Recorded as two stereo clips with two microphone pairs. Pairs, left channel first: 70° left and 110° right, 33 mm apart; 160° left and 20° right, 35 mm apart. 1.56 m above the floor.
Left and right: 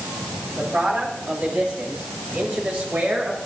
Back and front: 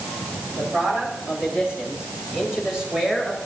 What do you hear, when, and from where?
0.5 s a man speaking: 75° right, 9.5 m; by 3.4 s 90° right, 7.5 m